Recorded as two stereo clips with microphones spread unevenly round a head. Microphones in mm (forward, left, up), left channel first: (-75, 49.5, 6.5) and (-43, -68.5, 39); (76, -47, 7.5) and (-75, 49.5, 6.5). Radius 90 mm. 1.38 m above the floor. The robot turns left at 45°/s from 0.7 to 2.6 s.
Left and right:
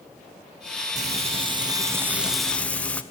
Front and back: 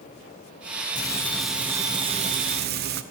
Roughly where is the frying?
Right.